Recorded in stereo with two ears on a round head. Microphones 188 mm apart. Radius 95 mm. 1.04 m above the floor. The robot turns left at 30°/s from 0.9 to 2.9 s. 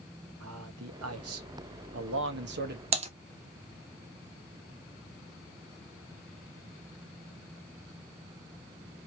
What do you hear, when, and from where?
0.4 s a man speaking: 75° right, 1.1 m; by 2.8 s 135° right, 1.1 m
2.9 s typing on a keyboard: 30° right (ahead or behind), 0.9 m